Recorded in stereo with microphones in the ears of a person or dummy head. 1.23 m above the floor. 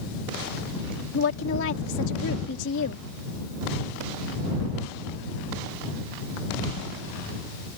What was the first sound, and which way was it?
A woman speaking, 70° left (ahead or behind).